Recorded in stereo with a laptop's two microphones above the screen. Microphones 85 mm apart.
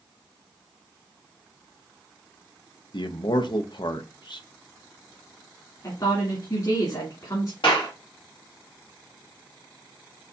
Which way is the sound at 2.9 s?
60° left (ahead or behind).